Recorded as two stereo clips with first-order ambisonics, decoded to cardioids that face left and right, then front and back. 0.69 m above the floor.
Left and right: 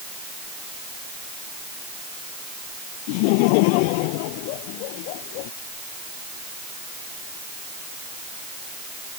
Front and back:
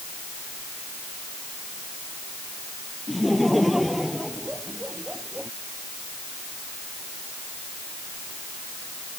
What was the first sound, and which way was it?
Laughter, 90° left.